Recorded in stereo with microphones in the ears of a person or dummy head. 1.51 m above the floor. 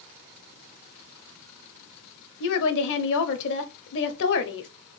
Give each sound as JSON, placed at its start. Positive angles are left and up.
{"t": 2.4, "sound": "a woman speaking", "side_deg": 65, "distance_m": 0.7}